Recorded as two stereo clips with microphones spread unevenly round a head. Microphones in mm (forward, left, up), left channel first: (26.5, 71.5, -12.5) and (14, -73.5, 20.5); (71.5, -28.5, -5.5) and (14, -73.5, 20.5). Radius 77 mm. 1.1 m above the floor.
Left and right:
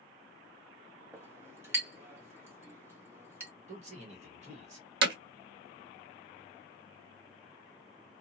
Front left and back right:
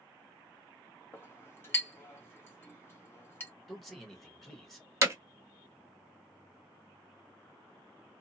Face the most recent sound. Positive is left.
turn(degrees=-95)